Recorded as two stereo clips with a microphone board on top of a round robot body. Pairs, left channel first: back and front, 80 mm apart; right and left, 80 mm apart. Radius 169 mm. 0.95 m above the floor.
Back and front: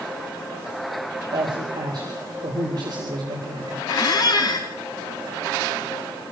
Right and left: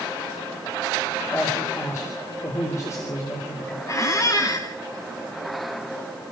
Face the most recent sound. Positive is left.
turn(degrees=-140)